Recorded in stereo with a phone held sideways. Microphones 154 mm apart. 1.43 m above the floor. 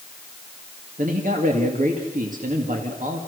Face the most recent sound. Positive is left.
turn(degrees=-60)  # may be behind; listen again after turning